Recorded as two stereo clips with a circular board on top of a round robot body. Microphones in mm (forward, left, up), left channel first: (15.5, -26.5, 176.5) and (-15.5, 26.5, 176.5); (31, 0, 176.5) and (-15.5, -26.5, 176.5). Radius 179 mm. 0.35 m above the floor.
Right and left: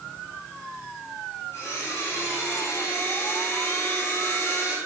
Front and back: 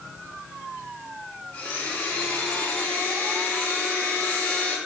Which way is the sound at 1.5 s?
20° right.